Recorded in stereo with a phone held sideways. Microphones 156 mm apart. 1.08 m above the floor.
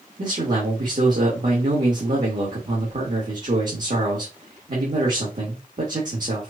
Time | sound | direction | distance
0.2 | a man speaking | 60° right (ahead or behind) | 1.6 m